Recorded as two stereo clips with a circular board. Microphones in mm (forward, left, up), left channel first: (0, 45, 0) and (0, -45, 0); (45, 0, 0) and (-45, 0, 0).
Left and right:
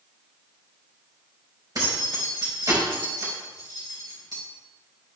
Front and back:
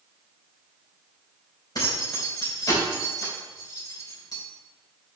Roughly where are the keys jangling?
Ahead right.